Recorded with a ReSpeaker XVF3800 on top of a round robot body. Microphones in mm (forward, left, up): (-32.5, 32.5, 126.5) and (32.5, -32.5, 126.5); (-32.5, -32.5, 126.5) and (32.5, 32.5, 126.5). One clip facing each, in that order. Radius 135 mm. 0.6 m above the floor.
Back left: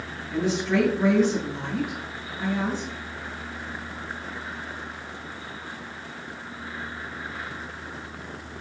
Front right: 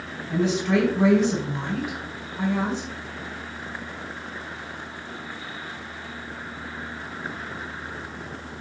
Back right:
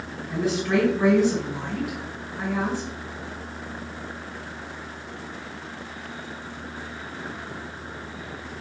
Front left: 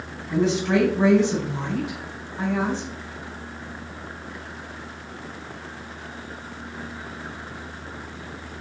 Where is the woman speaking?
20° right, 5.5 m.